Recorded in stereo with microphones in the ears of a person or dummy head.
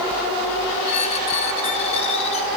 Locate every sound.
0.8 s a squeak: 40° left (ahead or behind), 0.8 m